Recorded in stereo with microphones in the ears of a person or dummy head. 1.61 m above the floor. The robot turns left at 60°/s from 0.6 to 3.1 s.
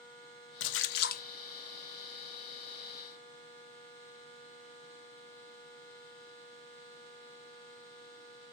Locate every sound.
0.6 s a splash: 85° left, 1.1 m; by 1.2 s 45° left, 1.1 m